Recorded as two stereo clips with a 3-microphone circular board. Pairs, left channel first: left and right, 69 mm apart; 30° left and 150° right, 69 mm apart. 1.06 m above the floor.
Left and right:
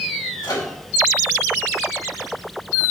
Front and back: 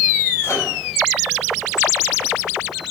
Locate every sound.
0.4 s a microwave: 80° left, 2.5 m